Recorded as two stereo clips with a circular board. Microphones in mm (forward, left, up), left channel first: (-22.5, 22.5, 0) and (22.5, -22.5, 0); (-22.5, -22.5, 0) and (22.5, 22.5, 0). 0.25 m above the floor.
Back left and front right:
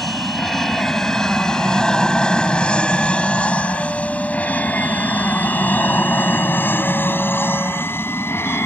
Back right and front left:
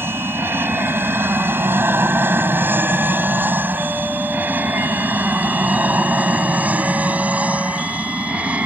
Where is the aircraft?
50° left; by 8.7 s 105° left.